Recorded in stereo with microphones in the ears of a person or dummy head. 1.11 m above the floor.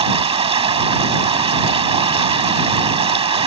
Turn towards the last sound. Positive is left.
turn(degrees=-35)  # may be behind; listen again after turning